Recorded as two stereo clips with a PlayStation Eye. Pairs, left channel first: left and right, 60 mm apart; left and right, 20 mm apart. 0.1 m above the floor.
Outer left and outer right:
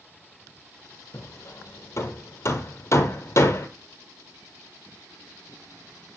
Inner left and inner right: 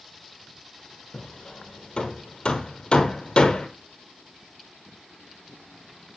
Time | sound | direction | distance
1.1 | hammering | 50° left (ahead or behind) | 0.7 m